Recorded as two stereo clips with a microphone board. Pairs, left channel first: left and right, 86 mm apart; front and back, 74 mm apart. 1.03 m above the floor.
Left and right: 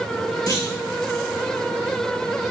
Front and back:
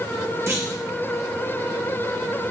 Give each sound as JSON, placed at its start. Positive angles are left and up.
{"t": 0.5, "sound": "a clunk", "azimuth_deg": 130, "distance_m": 2.0}